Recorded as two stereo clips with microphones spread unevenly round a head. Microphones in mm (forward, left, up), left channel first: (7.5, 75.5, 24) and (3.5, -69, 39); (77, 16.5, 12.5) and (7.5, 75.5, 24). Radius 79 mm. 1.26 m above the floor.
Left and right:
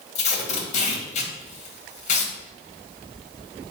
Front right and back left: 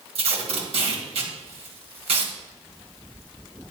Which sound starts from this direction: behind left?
Tape being pulled, at 0.1 s.